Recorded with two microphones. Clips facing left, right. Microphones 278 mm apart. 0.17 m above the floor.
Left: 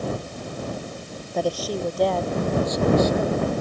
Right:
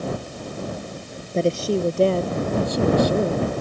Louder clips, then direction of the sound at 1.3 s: Right 5 dB; 25° right (ahead or behind).